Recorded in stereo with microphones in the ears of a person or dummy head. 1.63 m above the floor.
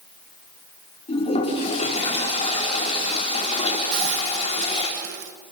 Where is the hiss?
60° right (ahead or behind), 1.2 m.